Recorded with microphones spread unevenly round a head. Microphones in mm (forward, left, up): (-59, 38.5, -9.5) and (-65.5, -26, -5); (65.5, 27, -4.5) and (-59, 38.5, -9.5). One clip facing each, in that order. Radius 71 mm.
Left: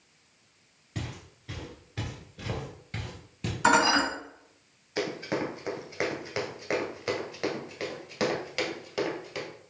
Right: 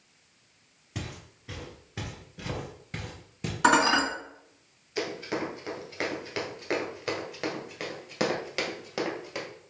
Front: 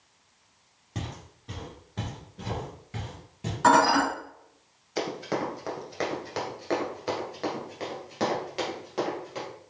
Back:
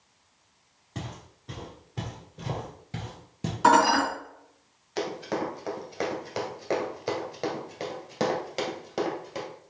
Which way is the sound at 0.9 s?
55° right.